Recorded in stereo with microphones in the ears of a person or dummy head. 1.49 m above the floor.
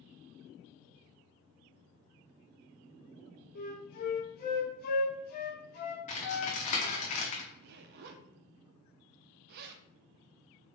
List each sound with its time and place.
3.5 s a flute: 50° left (ahead or behind), 0.7 m
6.1 s typing on a keyboard: 40° left (ahead or behind), 0.9 m
7.5 s a zipper: 60° right (ahead or behind), 0.6 m